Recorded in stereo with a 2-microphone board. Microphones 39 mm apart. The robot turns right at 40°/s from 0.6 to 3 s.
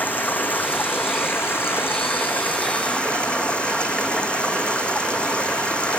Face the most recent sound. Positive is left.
turn(degrees=150)